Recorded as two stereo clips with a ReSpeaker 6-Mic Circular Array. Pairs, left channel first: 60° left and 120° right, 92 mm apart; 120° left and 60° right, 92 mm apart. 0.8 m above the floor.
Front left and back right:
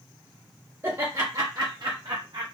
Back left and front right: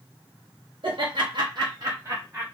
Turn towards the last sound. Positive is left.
turn(degrees=-130)